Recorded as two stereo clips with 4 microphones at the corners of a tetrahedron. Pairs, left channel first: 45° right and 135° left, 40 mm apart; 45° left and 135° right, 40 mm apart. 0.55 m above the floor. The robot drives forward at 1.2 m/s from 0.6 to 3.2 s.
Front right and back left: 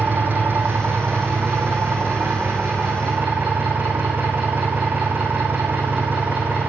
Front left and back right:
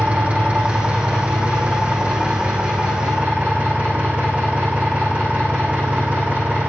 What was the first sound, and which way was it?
An engine running, 170° left.